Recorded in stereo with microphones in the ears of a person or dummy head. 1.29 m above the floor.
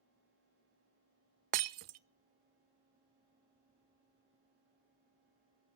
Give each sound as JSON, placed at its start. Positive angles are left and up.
{"t": 1.5, "sound": "breaking glass", "side_deg": -35, "distance_m": 0.5}